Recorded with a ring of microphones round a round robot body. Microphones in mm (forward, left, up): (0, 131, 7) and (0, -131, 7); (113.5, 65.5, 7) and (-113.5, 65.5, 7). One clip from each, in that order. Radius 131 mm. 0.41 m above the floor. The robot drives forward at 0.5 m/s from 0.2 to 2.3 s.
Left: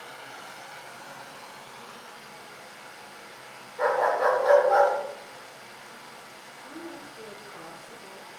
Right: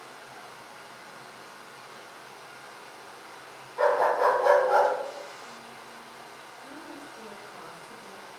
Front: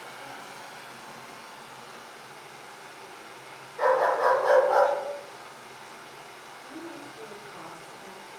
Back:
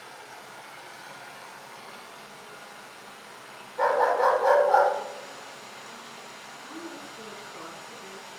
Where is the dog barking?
135° right, 1.2 m.